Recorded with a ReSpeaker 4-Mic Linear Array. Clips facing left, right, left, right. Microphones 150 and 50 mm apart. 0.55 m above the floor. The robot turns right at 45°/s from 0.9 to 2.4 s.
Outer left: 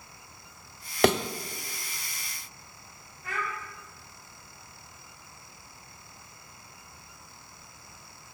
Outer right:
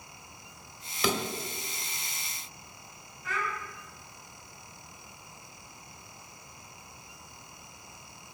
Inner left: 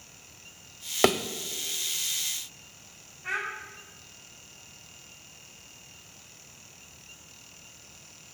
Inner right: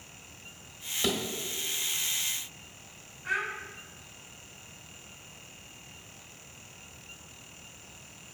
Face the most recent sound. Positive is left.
turn(degrees=70)  # may be behind; listen again after turning